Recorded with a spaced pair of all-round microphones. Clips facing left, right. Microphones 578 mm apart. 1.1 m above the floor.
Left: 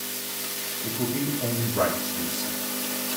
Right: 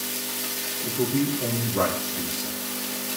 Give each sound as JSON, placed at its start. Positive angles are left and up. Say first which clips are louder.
{"t": 0.8, "sound": "a man speaking", "louder": "right 4 dB", "side_deg": -60, "distance_m": 4.0}